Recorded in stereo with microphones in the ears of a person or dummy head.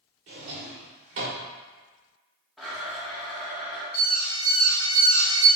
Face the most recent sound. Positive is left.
turn(degrees=15)  # may be behind; listen again after turning